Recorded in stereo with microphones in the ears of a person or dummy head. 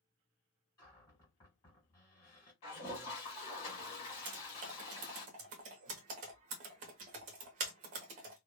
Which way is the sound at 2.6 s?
30° left (ahead or behind).